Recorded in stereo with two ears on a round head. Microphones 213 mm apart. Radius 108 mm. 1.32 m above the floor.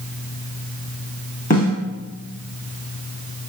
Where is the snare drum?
35° left (ahead or behind), 1.2 m.